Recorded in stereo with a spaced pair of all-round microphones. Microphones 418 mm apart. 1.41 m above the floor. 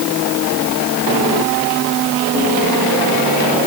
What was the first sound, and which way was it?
Only background noise.